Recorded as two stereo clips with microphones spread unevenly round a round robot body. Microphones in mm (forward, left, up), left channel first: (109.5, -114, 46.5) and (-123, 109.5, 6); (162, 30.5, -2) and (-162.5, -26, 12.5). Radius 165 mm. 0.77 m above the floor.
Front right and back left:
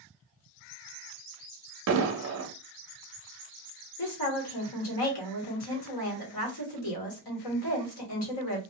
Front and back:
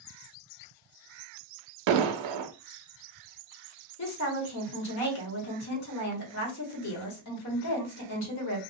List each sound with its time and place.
1.9 s an explosion: 175° right, 0.5 m
4.0 s a woman speaking: 20° right, 1.3 m